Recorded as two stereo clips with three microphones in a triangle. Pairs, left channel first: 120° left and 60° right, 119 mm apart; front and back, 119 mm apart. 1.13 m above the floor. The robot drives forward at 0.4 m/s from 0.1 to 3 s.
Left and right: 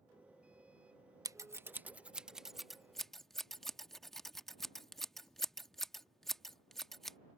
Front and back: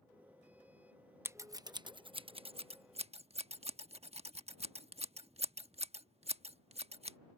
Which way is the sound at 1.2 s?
115° right.